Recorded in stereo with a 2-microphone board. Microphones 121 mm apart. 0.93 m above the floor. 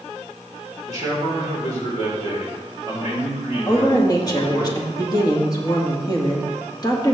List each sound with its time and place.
0.9 s a man speaking: 80° left, 3.5 m
3.7 s a woman speaking: 35° left (ahead or behind), 1.8 m